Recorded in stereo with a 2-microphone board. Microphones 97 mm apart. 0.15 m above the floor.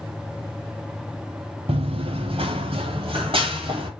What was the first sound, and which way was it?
Running footsteps, 85° right.